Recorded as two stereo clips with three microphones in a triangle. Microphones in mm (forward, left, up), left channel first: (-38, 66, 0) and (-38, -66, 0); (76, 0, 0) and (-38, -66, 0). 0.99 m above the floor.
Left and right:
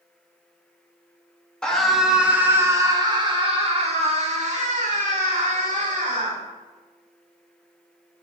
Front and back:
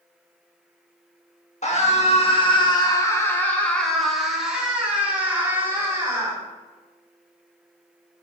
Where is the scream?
5° left, 1.8 m; by 6.4 s 85° right, 3.5 m.